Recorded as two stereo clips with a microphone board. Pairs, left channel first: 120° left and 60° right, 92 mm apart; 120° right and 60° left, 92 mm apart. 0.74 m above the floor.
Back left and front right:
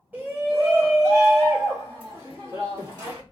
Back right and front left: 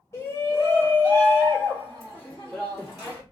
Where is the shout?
115° right, 1.1 m; by 3.2 s 15° right, 1.8 m.